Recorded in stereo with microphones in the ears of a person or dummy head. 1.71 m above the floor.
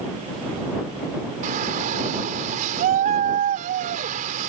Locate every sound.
1.4 s a shout: 45° right (ahead or behind)